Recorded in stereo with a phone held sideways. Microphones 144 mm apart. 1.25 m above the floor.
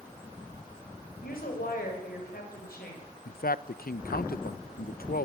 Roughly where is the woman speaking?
Left.